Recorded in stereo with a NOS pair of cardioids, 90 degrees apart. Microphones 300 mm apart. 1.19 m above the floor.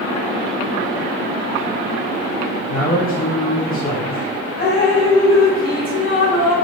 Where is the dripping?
30° left, 1.8 m.